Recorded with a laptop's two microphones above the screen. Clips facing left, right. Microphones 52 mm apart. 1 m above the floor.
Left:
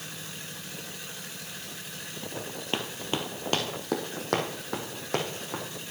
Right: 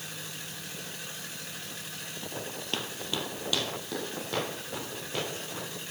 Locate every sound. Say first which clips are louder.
2.7 s running footsteps: left 3 dB; 25° left (ahead or behind), 1.1 m; by 5.6 s 70° left (ahead or behind), 3 m